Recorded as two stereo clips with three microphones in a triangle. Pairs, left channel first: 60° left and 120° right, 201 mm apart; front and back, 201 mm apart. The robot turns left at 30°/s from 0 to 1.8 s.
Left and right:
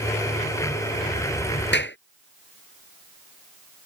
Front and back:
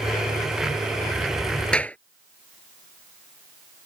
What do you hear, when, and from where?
1.7 s a clap: 85° left